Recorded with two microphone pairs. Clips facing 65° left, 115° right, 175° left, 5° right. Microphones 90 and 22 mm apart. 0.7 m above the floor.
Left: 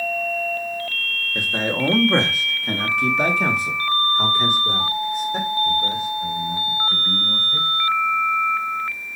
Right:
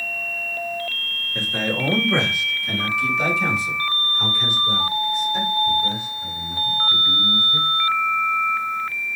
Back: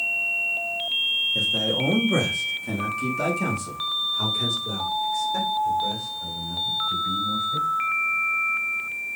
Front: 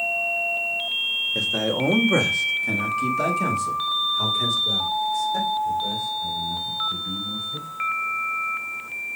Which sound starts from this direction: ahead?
A man speaking, at 1.4 s.